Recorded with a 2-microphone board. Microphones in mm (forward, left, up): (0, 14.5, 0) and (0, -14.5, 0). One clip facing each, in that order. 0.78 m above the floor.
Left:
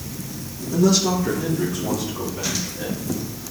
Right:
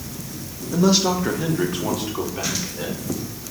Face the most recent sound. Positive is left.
turn(degrees=-55)  # may be behind; listen again after turning